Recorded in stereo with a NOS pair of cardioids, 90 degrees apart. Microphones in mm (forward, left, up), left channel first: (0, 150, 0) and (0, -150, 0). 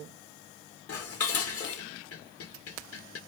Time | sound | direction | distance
0.9 | dishes clattering | 50° left | 3 m